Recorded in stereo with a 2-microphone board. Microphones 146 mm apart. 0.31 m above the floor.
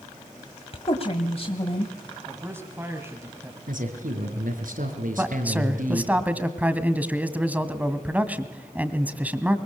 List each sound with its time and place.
0.7 s a woman speaking: 45° left (ahead or behind), 1.6 m
2.2 s a man speaking: 15° right (ahead or behind), 2.5 m
3.7 s a man speaking: 75° right (ahead or behind), 5.5 m
5.2 s a man speaking: 10° right (ahead or behind), 1.9 m